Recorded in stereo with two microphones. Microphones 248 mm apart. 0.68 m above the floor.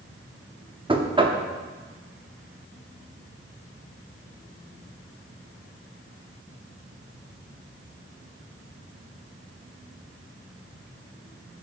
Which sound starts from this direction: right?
Knocking, at 0.9 s.